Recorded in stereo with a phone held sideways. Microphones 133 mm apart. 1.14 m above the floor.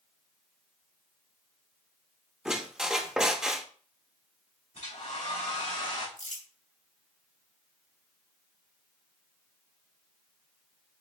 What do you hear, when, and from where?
2.5 s a squeak: 5° right (ahead or behind), 0.5 m
4.8 s a hair dryer: 60° left (ahead or behind), 2 m
6.2 s crumpling: 70° left (ahead or behind), 2.5 m